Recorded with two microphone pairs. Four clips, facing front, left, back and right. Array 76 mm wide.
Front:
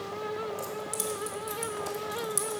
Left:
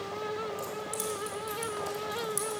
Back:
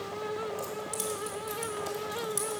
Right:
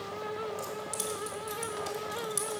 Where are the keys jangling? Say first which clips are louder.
Left 1 dB, front 1 dB; 145° right, 1.4 m.